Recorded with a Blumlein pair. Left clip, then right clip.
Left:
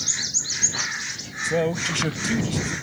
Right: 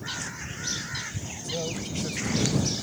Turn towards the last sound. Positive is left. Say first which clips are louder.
# left 10 dB
turn(degrees=30)